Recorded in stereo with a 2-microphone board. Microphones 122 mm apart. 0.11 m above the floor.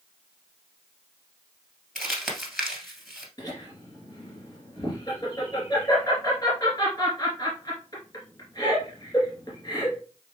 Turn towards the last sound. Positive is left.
turn(degrees=35)  # may be behind; listen again after turning